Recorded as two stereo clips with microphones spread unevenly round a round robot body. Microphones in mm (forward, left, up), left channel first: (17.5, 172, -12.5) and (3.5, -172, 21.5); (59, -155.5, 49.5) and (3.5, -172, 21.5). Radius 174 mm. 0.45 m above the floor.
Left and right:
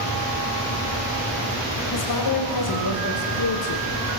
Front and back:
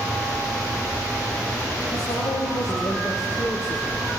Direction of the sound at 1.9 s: 65° left.